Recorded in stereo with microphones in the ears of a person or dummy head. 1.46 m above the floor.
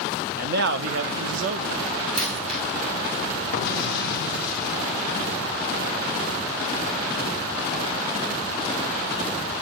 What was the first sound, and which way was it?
A man speaking, 50° right (ahead or behind).